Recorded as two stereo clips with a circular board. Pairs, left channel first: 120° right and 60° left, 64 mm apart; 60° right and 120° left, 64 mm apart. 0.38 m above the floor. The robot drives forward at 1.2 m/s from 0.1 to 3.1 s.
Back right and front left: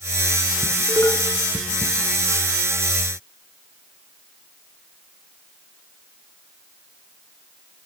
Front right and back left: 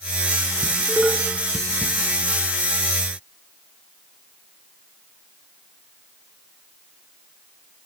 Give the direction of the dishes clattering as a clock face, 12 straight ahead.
5 o'clock.